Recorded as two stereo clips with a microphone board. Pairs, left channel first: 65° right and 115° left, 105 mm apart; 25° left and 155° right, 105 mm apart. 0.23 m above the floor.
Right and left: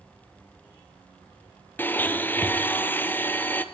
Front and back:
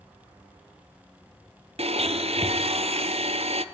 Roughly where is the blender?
Behind right.